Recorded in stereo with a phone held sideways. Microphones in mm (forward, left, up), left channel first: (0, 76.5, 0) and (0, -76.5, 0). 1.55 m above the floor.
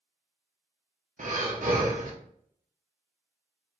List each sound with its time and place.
1.2 s breathing: 55° right (ahead or behind), 0.8 m